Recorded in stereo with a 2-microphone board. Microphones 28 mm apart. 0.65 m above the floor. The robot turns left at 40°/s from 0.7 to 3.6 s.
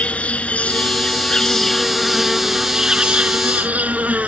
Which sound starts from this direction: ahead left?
An insect, at 0.0 s.